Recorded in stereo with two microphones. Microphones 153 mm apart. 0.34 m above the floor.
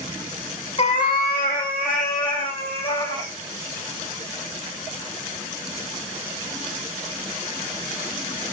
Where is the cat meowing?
40° left (ahead or behind), 0.5 m; by 3.3 s 65° left (ahead or behind), 2.5 m.